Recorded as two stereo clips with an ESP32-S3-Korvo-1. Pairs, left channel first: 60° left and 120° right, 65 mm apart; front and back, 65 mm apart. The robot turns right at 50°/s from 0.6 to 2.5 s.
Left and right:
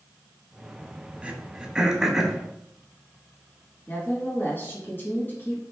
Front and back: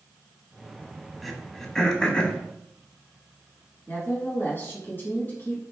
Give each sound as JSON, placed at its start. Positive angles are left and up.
{"t": 1.2, "sound": "throat clearing", "azimuth_deg": -90, "distance_m": 0.5}
{"t": 3.9, "sound": "a woman speaking", "azimuth_deg": 30, "distance_m": 1.6}